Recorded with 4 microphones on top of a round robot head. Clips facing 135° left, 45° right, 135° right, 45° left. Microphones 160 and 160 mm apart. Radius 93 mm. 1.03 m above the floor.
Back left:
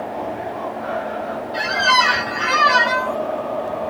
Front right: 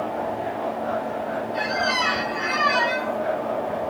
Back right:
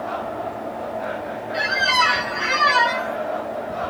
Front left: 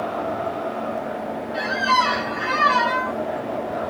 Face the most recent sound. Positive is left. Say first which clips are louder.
# back left 8 dB, front left 2 dB
turn(degrees=155)